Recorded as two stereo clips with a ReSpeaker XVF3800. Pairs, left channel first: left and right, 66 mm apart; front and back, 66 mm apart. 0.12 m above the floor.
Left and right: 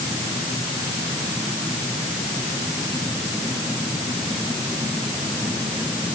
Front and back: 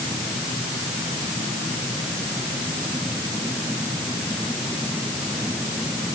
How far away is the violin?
No violin in this recording.